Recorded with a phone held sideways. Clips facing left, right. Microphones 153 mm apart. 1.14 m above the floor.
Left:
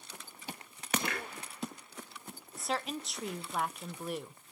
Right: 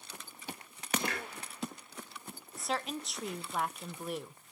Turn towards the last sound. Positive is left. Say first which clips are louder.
# even
turn(degrees=0)  # may be behind; listen again after turning